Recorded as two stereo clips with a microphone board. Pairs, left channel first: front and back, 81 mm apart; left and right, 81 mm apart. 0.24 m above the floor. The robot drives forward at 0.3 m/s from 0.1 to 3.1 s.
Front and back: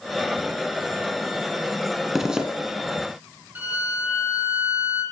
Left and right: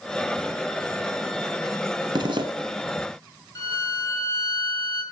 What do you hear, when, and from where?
2.1 s a zipper: 95° right, 1.0 m; by 2.5 s 100° right, 1.0 m
3.5 s a violin: 115° left, 2 m